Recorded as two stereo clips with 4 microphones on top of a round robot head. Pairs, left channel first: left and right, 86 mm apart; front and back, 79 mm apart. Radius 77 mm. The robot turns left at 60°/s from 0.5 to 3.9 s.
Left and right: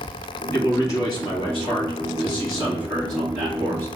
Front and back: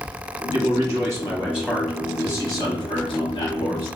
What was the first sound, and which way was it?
A man speaking, 160° left.